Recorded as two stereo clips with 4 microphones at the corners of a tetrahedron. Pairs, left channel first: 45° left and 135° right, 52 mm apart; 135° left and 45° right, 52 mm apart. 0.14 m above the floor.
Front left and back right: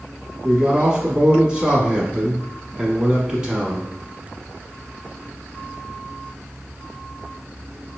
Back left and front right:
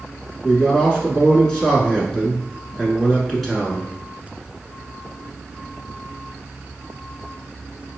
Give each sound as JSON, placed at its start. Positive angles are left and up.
{"t": 0.4, "sound": "a man speaking", "azimuth_deg": -160, "distance_m": 1.0}